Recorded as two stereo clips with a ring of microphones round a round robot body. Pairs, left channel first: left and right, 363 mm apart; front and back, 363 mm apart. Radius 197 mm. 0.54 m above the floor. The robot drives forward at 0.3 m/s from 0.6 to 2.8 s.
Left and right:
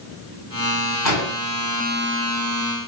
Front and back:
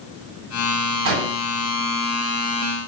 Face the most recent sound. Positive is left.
turn(degrees=135)